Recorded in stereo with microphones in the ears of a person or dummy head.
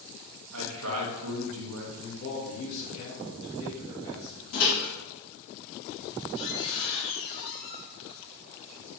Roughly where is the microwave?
Left.